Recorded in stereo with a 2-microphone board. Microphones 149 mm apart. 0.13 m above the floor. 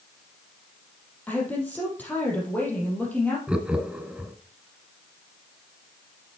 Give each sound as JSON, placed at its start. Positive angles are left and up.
{"t": 1.3, "sound": "a woman speaking", "side_deg": 10, "distance_m": 4.0}
{"t": 3.5, "sound": "laughter", "side_deg": -5, "distance_m": 1.1}